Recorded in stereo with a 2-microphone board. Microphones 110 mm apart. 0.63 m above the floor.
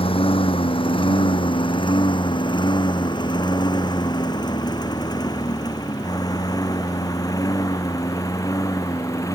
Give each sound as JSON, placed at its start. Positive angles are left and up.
{"t": 0.0, "sound": "a lawn mower", "side_deg": 55}